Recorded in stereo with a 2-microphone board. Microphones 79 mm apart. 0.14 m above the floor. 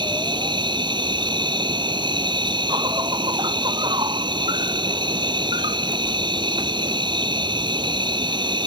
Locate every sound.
0.0 s an insect: 75° right (ahead or behind)